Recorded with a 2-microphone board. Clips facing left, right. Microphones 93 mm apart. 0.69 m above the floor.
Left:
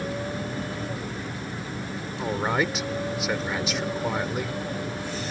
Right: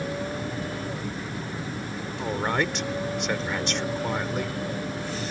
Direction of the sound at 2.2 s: 5° left (ahead or behind).